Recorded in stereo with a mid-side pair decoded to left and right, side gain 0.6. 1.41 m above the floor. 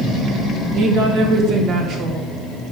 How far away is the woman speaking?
About 1.6 m.